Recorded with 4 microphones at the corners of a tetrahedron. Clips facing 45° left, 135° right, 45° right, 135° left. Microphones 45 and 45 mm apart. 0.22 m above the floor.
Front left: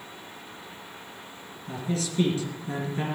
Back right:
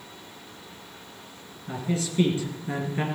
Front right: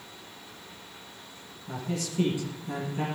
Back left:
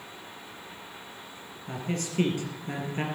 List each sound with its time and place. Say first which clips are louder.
1.7 s a man speaking: back right 2 dB, back left 1 dB; 165° left, 3 m